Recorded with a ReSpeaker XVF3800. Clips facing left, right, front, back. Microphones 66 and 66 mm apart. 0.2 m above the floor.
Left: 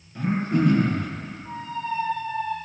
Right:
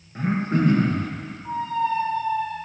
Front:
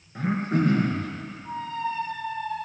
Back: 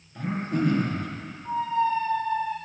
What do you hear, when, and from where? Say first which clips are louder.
0.1 s throat clearing: even, front 3 dB; 45° right, 2.5 m
1.4 s a squeak: right 7 dB, back 6 dB; 100° right, 3 m